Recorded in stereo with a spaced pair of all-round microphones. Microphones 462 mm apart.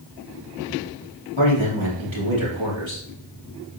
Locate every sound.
1.4 s a man speaking: 80° right, 3 m